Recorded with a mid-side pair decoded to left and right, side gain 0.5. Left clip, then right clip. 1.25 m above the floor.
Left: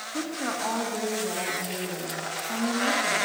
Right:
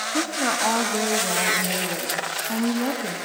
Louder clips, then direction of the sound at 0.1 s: Right 6 dB; 45° right.